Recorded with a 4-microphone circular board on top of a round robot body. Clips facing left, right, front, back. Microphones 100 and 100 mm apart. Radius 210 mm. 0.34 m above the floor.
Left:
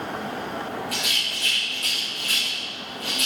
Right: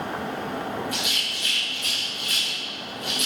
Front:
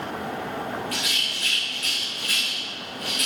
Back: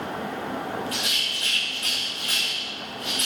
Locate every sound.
0.9 s a rattle: 115° left, 8.5 m